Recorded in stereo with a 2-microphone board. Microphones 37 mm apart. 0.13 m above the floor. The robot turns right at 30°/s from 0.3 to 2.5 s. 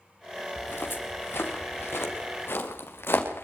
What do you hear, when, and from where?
0.6 s footsteps: 65° left (ahead or behind), 6 m; by 3.5 s 80° left, 6 m